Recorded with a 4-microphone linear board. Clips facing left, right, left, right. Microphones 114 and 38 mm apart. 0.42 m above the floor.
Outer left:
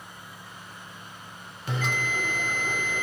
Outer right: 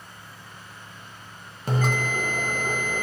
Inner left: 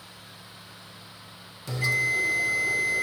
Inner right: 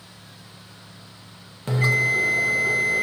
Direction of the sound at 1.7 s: 40° right (ahead or behind).